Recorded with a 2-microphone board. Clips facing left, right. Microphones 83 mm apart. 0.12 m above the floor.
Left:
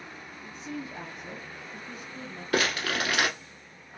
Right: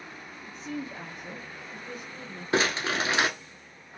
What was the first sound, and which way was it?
A woman speaking, 40° right (ahead or behind).